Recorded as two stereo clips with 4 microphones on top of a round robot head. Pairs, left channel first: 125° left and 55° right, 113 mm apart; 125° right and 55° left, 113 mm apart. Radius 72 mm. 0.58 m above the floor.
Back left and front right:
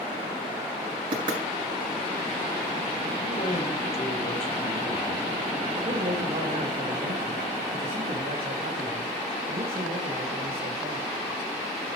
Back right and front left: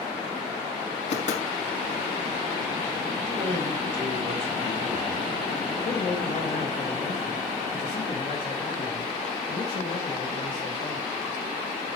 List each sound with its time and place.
1.1 s knocking: 105° right, 5.5 m
3.2 s a man speaking: 95° left, 4.5 m
5.8 s a man speaking: 85° right, 2.5 m